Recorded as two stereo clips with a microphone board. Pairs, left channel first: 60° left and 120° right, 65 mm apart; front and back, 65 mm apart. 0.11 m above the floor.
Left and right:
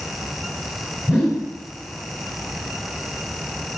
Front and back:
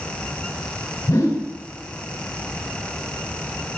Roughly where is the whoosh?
Ahead right.